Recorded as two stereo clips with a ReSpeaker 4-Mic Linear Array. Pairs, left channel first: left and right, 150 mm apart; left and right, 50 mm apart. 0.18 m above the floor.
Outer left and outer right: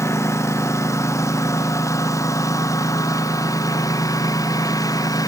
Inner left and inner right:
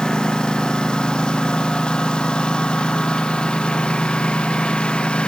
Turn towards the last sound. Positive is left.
turn(degrees=25)  # may be behind; listen again after turning